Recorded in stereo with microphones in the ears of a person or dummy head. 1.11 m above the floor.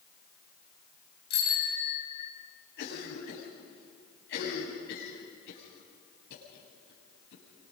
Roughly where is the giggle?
I don't hear a giggle.